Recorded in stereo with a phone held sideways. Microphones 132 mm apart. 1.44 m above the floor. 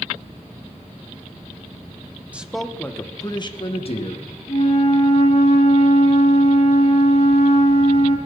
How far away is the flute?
About 5 m.